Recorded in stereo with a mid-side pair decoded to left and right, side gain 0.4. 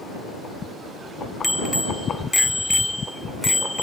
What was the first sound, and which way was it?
A bicycle bell, 10° left.